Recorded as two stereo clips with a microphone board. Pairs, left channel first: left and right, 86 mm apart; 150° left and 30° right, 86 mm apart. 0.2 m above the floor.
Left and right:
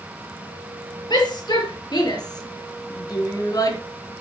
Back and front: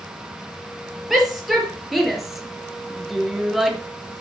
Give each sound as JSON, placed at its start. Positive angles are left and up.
{"t": 1.1, "sound": "a shout", "azimuth_deg": 60, "distance_m": 5.0}